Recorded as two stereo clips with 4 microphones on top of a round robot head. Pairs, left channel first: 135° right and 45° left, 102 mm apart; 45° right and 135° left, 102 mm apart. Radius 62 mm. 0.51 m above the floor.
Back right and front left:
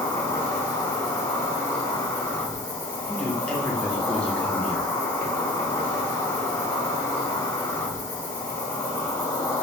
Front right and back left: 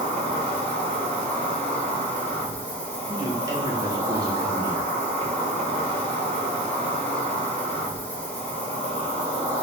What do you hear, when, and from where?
0.0 s an insect: 105° right, 1.7 m
3.1 s a man speaking: 155° left, 1.3 m